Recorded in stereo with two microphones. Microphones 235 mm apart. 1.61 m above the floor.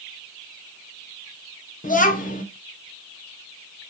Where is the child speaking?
35° left (ahead or behind), 0.5 m.